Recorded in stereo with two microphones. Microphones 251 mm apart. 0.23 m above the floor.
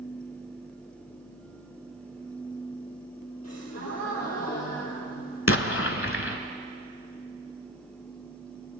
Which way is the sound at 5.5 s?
55° left (ahead or behind).